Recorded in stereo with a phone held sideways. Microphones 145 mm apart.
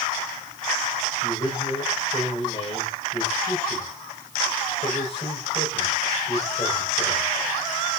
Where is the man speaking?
40° left (ahead or behind), 9 m.